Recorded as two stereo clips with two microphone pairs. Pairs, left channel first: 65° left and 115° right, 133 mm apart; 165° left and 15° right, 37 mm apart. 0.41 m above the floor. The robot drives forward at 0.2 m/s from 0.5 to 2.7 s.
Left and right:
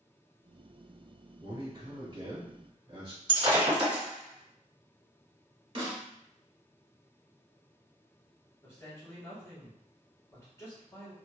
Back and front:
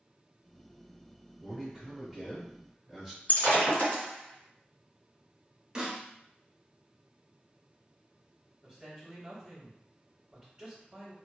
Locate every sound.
1.4 s a man speaking: 95° right, 1.4 m; by 3.2 s 110° right, 1.5 m
3.3 s breaking glass: 160° right, 1.5 m
5.8 s a snare drum: 85° right, 1.0 m
8.6 s a man speaking: 30° left, 1.5 m